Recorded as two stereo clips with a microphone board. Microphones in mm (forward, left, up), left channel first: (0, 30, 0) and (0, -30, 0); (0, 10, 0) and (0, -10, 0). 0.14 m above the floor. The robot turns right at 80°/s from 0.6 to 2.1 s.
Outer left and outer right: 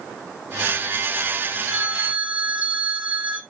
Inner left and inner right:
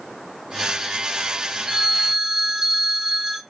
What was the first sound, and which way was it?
A phone ringing, 25° right (ahead or behind).